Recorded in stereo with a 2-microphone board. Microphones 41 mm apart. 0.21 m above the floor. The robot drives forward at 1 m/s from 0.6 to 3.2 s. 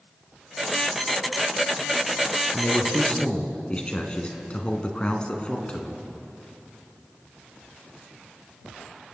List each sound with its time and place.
2.5 s a man speaking: 30° left (ahead or behind), 2.5 m; by 6.0 s 25° left (ahead or behind), 2.5 m